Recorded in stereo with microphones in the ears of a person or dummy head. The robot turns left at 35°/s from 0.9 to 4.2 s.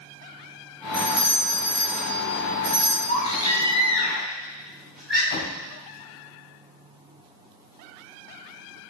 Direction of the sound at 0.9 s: 40° left (ahead or behind).